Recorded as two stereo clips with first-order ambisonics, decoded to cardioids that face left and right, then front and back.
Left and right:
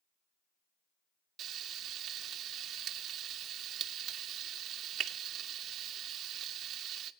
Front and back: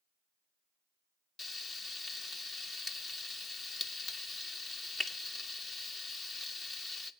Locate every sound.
1.4 s frying: 60° right, 0.8 m